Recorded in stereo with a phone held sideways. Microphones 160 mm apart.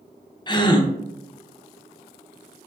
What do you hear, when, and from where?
0.5 s a gasp: 30° left (ahead or behind), 0.5 m